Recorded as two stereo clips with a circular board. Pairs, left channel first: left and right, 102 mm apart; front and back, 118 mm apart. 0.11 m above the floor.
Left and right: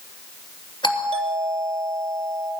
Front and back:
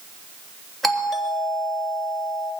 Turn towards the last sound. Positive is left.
turn(degrees=90)